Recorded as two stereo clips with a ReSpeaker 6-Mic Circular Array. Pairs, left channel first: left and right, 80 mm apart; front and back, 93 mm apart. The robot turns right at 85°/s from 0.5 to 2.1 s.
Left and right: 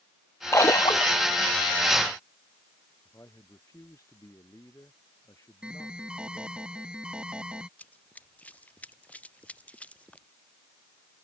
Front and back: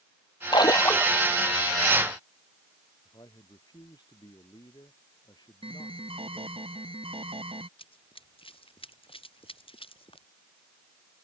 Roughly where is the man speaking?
Ahead left.